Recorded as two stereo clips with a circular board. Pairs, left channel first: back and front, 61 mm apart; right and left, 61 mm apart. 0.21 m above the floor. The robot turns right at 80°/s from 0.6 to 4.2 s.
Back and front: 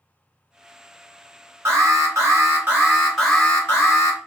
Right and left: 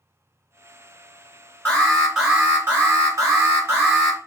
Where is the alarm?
35° right, 1.8 m; by 4.2 s 170° left, 1.8 m.